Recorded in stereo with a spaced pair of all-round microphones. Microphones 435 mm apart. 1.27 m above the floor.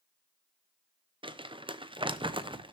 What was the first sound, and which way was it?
Crumpling, 10° right (ahead or behind).